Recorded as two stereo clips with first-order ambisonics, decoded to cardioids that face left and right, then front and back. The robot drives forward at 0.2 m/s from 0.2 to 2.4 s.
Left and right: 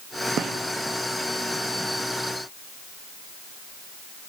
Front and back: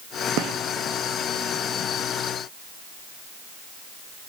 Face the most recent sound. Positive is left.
turn(degrees=-155)